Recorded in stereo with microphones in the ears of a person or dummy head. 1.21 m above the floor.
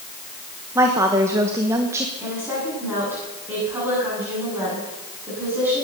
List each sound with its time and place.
0.8 s a woman speaking: 15° right (ahead or behind), 1.3 m
2.2 s a woman speaking: 15° right (ahead or behind), 9.5 m